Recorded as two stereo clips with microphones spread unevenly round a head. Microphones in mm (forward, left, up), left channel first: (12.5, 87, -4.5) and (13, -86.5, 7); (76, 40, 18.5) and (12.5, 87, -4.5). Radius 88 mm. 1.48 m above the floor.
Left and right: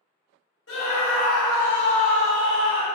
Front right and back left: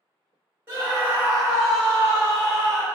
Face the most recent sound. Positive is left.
turn(degrees=40)